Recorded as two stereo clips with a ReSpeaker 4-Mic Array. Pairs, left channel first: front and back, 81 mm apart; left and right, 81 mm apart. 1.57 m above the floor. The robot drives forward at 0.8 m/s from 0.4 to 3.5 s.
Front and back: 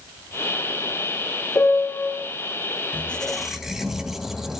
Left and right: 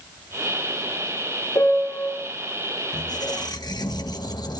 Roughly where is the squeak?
Left.